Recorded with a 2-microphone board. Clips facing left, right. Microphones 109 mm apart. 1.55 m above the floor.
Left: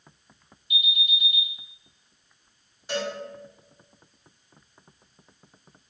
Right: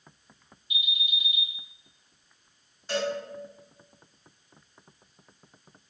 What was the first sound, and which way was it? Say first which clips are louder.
An alarm: left 4 dB; 55° left (ahead or behind).